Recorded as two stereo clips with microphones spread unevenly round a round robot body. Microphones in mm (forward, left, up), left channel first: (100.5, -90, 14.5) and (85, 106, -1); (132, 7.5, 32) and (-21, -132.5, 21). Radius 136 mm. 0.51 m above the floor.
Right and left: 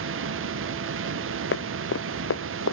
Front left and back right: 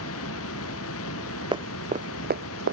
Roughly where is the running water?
Left.